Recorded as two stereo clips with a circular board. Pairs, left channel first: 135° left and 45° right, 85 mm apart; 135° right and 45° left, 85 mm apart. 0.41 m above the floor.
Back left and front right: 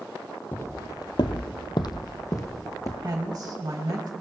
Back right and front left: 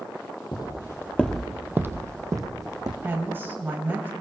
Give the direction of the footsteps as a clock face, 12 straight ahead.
5 o'clock.